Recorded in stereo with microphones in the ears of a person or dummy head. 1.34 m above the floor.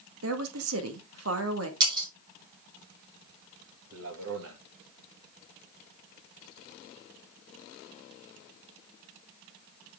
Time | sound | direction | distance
0.2 | a woman speaking | 80° right | 1.9 m
1.8 | breaking glass | 15° right (ahead or behind) | 3.5 m
3.9 | a man speaking | 70° right (ahead or behind) | 2 m